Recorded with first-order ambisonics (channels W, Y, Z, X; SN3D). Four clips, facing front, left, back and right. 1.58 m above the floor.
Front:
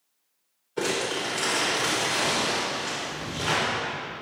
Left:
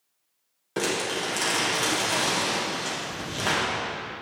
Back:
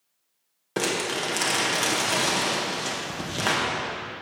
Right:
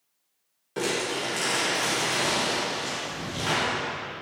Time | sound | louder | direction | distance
0.8 | crumpling | left 1 dB, back 1 dB | 160° left | 2 m